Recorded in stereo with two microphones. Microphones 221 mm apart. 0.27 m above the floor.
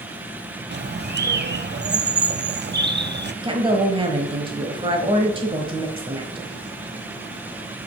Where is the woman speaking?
25° right (ahead or behind), 1.2 m.